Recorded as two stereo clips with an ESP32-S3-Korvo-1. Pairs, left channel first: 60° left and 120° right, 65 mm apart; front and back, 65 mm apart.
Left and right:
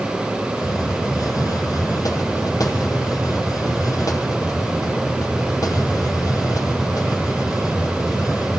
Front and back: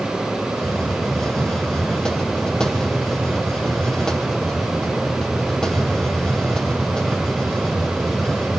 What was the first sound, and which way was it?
A hiss, 80° left.